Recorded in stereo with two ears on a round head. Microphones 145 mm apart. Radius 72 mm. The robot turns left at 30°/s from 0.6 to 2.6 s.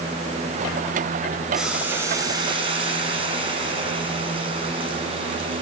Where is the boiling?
Straight ahead, 7 m; by 5.6 s 35° right, 7 m.